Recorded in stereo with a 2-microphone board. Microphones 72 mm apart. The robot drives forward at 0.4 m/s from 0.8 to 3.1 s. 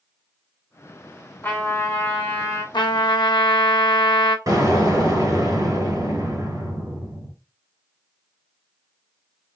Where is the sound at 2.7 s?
80° left, 0.6 m.